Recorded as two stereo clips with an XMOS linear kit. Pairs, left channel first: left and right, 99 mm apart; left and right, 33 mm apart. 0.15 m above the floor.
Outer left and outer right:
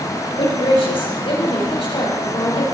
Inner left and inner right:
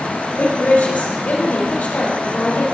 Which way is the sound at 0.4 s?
65° left (ahead or behind).